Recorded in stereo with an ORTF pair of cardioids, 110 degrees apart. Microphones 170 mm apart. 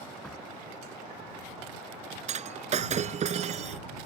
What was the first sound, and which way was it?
A door slam, 5° left.